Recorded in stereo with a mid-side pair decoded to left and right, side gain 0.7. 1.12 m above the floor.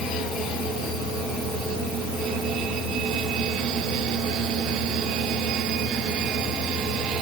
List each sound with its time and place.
0.0 s a fan: 10° left, 10 m